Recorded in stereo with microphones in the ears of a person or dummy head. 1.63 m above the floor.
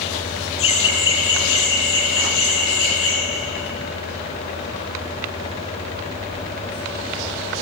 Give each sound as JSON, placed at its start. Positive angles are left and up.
{"t": 0.6, "sound": "laughter", "side_deg": 25, "distance_m": 0.6}